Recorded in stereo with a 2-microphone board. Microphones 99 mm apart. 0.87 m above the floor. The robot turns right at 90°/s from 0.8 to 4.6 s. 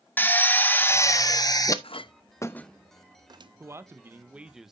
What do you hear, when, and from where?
0.2 s a drill: 30° left, 0.7 m; by 1.7 s 115° left, 0.7 m
1.8 s a clink: 65° left (ahead or behind), 0.5 m; by 3.5 s 55° right (ahead or behind), 0.5 m
3.6 s a man speaking: 25° right (ahead or behind), 0.8 m; by 4.7 s 5° right (ahead or behind), 0.8 m